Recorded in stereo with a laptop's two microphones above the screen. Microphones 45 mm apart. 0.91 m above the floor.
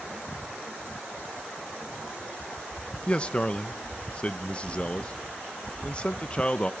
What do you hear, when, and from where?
3.1 s a man speaking: 25° left (ahead or behind), 0.5 m